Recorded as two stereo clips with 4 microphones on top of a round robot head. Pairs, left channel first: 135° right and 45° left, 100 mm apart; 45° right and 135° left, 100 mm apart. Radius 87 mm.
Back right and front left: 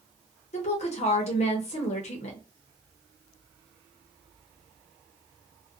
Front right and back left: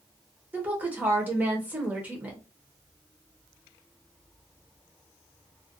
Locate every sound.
0.5 s a woman speaking: 150° right, 0.7 m